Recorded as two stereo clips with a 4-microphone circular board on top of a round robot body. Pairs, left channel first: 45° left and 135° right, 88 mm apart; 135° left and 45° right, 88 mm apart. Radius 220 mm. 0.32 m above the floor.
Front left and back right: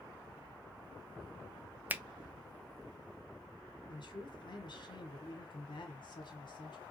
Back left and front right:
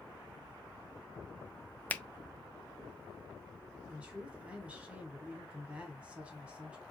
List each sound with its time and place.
1.9 s a finger snap: 175° right, 0.6 m
3.9 s a man speaking: 30° left, 1.7 m